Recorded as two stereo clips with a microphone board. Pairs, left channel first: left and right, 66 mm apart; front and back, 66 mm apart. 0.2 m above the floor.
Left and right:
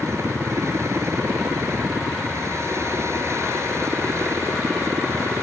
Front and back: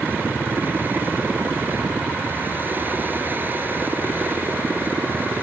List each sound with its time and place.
0.0 s a helicopter: 125° right